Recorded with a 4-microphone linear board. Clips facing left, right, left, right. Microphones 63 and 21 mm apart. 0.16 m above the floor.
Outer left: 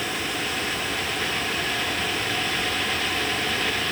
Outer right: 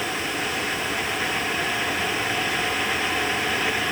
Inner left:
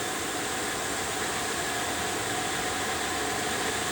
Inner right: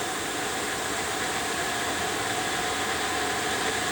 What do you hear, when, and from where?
Only background noise.